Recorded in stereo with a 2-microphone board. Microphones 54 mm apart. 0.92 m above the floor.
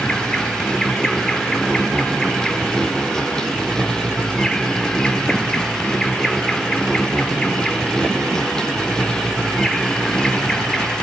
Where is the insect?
10° left (ahead or behind), 1.2 m.